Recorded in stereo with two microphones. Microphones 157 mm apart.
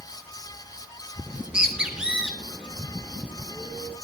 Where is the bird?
5° right (ahead or behind), 4 m.